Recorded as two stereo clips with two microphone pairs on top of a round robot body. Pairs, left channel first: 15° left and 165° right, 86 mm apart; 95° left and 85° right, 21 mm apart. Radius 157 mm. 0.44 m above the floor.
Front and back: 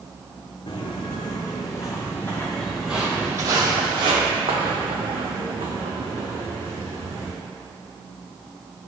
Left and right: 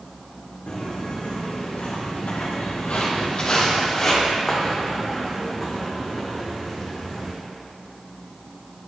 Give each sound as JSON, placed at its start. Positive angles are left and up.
{"t": 0.7, "sound": "footsteps", "azimuth_deg": 55, "distance_m": 1.5}